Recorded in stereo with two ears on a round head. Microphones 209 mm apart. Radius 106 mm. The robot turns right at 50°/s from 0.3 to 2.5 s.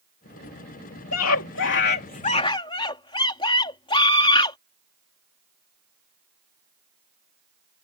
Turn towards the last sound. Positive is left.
turn(degrees=155)